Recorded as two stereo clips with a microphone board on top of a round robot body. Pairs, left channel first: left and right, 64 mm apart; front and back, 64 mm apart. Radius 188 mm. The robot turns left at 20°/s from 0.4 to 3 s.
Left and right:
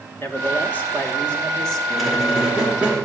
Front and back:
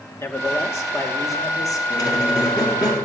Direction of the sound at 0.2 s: 40° left.